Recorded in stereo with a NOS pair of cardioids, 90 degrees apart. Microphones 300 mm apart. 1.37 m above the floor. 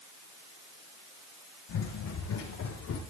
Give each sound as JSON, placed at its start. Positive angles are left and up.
{"t": 1.7, "sound": "running footsteps", "azimuth_deg": 65, "distance_m": 5.0}